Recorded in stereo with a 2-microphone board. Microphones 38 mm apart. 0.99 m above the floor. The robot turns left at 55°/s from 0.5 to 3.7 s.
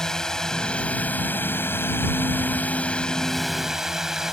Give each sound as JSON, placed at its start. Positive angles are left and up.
{"t": 0.0, "sound": "a drone", "azimuth_deg": 165}